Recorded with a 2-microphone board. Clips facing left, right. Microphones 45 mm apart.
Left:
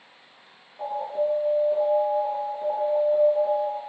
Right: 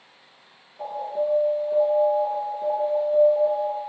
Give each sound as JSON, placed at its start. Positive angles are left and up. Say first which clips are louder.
{"t": 0.8, "sound": "an alarm", "louder": "even", "side_deg": 15, "distance_m": 1.2}